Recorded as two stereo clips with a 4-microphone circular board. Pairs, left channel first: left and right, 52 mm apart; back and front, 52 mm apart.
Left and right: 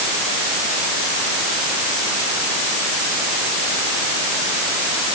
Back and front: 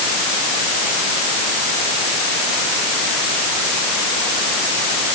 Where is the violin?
I don't hear a violin.